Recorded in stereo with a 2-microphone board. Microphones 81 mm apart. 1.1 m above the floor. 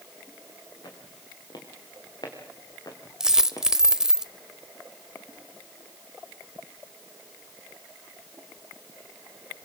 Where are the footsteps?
65° left (ahead or behind), 7 m; by 3.7 s 45° left (ahead or behind), 3 m.